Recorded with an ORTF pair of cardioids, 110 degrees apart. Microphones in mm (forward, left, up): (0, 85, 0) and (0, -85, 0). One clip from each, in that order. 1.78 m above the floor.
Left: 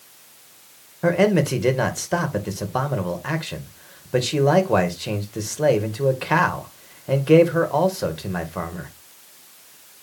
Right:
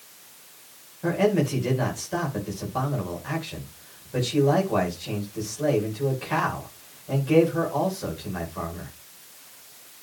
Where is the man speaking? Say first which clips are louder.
Left 5 dB; 55° left, 2.5 m.